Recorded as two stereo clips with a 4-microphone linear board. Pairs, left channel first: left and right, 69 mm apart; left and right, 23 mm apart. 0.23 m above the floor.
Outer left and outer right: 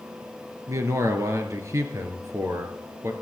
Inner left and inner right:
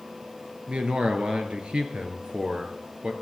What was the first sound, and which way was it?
A man speaking, 50° right (ahead or behind).